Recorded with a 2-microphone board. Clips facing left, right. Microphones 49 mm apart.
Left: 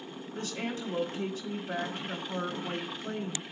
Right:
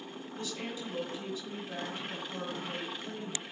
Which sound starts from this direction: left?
A woman speaking, at 0.3 s.